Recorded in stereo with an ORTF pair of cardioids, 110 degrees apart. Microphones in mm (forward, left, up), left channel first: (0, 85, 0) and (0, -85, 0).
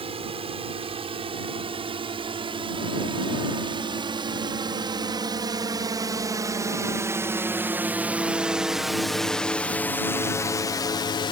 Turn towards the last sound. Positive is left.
turn(degrees=70)